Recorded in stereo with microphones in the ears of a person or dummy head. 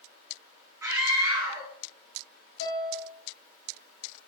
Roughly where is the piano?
Left.